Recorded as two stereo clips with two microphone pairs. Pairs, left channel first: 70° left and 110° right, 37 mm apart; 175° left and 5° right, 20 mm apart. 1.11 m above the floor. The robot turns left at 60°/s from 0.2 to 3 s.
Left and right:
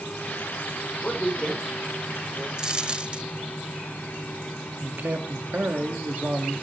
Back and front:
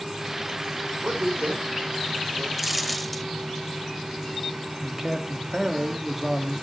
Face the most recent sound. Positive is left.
turn(degrees=-80)